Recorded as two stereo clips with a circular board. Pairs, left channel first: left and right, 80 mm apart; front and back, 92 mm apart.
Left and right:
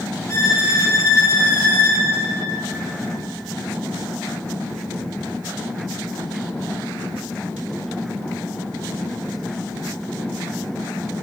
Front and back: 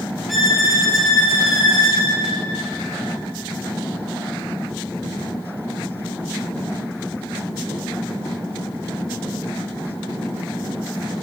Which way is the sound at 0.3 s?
95° left.